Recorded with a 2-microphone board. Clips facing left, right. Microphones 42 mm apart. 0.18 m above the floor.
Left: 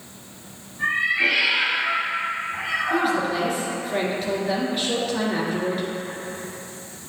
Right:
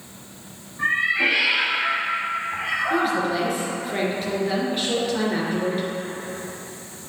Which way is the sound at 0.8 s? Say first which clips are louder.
Even; 35° right (ahead or behind).